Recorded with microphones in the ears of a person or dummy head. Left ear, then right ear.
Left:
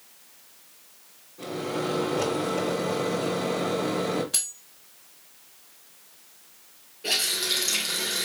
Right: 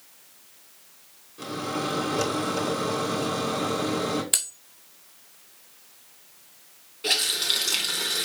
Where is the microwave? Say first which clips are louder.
Even; 80° right, 3.5 m.